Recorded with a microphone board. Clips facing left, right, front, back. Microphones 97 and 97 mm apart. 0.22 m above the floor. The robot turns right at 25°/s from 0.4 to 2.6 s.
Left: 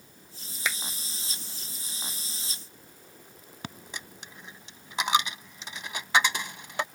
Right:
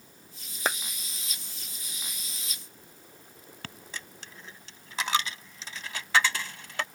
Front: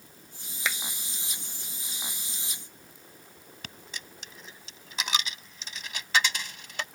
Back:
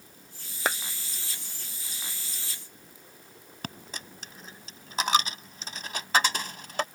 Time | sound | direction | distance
0.7 | a clap | 135° right | ?
3.6 | a dropped coin | 155° left | ?